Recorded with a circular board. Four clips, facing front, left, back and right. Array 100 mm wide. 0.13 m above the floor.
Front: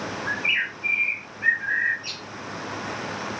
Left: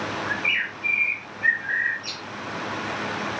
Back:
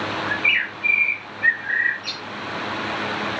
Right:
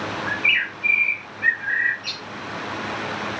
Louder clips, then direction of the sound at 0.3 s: Right 2 dB, back 4 dB; 120° right.